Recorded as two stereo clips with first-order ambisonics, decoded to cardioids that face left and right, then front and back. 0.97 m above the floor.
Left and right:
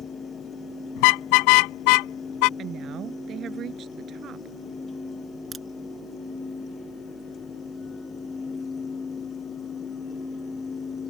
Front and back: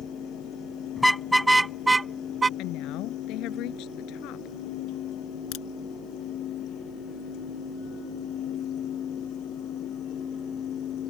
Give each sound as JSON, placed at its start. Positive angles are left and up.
{"t": 1.0, "sound": "a car horn", "azimuth_deg": 85}
{"t": 2.6, "sound": "a woman speaking", "azimuth_deg": -35}
{"t": 5.5, "sound": "a crack", "azimuth_deg": -20}